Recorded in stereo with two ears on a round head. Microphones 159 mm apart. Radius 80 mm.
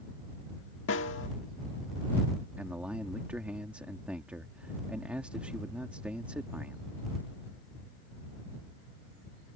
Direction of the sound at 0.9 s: 80° left.